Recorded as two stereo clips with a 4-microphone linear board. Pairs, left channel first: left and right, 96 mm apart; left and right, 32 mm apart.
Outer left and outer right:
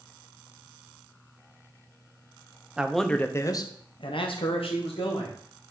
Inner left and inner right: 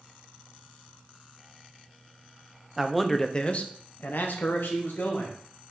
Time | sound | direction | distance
2.8 | a man speaking | 10° right (ahead or behind) | 0.6 m